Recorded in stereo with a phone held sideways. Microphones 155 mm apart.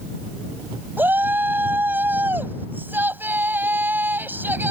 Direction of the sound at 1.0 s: 15° right (ahead or behind).